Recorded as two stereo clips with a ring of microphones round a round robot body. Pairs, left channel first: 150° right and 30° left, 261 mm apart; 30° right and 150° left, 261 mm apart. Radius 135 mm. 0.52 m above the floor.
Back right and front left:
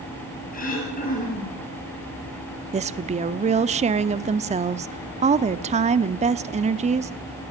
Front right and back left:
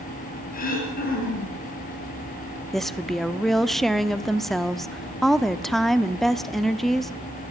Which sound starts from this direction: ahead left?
A woman speaking, at 2.7 s.